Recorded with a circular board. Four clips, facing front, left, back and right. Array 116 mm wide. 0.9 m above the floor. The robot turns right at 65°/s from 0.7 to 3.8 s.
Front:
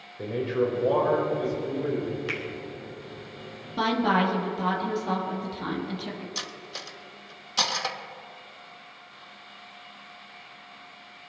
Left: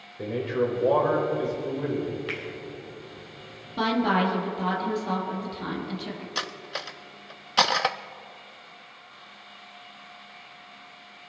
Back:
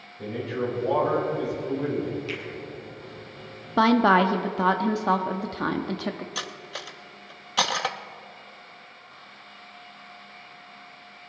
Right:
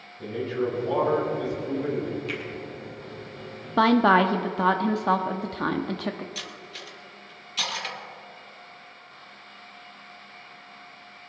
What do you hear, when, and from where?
0.2 s a man speaking: 55° left, 4.5 m; by 2.2 s 150° left, 4.5 m
2.3 s a finger snap: 40° left, 3.5 m; by 2.4 s 50° left, 3.5 m
3.8 s a woman speaking: 135° right, 1.2 m; by 6.2 s 130° right, 1.2 m
6.3 s cutlery clinking: 110° left, 0.5 m